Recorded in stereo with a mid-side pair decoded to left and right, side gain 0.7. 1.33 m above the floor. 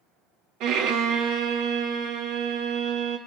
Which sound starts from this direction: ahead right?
A violin, at 0.6 s.